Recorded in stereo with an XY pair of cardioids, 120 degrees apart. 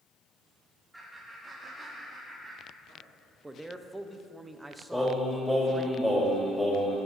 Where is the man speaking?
15° right, 0.8 m.